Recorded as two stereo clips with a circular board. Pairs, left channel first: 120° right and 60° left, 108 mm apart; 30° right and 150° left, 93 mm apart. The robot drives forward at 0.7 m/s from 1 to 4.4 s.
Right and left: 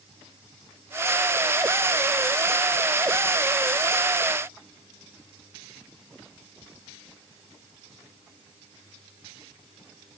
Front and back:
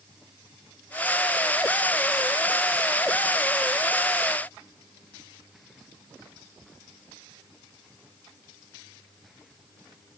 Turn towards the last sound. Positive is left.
No sound to turn to.